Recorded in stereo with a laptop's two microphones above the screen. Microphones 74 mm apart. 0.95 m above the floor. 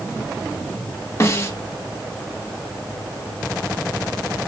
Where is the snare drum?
35° left (ahead or behind), 0.8 m.